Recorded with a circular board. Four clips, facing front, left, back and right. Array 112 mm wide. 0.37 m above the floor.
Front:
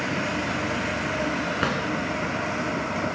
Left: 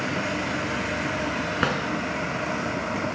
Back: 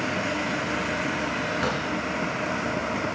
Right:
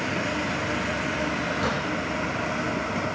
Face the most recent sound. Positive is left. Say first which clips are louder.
# left 3 dB, front 1 dB
turn(degrees=60)